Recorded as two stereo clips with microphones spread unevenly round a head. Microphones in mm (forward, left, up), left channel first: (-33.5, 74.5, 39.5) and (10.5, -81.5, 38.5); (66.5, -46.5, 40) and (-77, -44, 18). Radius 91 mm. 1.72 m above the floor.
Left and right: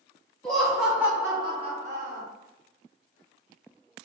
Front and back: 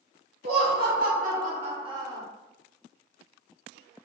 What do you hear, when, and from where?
0.4 s laughter: 170° right, 1.8 m; by 2.2 s 105° right, 1.3 m